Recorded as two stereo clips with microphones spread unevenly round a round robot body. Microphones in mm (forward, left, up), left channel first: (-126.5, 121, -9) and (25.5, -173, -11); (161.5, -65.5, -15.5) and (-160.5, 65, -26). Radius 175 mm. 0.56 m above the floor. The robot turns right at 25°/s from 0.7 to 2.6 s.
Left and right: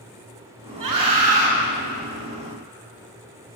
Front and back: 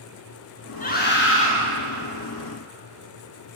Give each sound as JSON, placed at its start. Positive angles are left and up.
{"t": 0.8, "sound": "a scream", "azimuth_deg": -90, "distance_m": 7.5}